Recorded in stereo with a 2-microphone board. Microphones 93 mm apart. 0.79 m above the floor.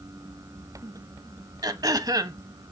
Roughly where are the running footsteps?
I don't hear running footsteps.